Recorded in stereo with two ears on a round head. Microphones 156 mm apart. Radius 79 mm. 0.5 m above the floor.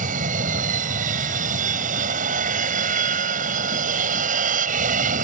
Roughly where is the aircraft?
Right.